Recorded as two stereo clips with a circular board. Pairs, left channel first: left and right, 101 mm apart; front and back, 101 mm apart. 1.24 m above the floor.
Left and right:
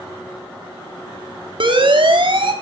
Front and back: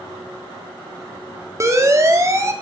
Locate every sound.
1.6 s a siren: 120° right, 3.5 m